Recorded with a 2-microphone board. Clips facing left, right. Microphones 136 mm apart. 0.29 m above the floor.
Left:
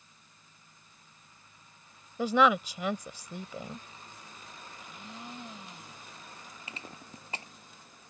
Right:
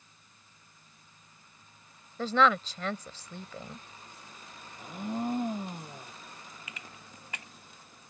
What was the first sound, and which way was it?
A woman speaking, 15° left (ahead or behind).